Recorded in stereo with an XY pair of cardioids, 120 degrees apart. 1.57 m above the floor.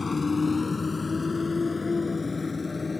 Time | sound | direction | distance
0.0 | a motorcycle | 20° left | ?